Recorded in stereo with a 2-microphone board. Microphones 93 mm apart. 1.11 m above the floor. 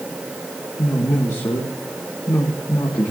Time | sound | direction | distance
0.8 | a man speaking | 35° left (ahead or behind) | 1.6 m